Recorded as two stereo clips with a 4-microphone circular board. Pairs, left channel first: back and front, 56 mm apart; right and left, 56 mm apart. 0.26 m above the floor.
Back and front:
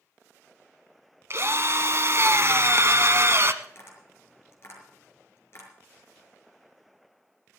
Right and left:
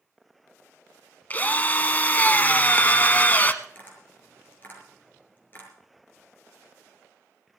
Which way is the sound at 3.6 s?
145° right.